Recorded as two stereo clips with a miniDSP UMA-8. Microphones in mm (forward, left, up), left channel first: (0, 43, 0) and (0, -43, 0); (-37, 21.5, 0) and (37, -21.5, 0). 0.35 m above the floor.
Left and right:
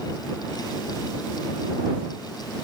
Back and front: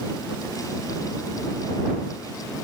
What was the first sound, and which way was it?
Only background noise.